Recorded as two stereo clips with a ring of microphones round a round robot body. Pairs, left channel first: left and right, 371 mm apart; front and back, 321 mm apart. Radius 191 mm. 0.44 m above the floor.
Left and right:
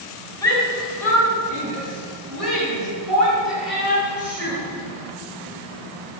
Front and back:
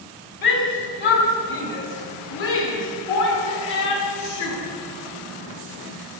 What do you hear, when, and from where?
0.4 s a shout: 10° left, 3.5 m; by 4.6 s 5° right, 6 m